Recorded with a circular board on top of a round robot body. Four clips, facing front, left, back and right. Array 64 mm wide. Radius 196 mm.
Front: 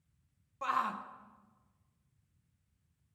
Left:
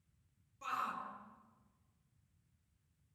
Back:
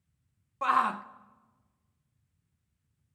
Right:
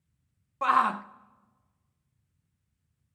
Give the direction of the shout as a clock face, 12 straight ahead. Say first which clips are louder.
Right 16 dB, back 7 dB; 4 o'clock.